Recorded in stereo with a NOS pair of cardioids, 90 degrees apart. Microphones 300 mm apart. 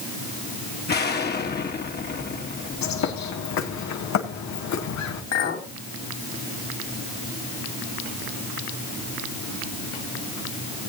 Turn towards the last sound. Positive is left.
turn(degrees=65)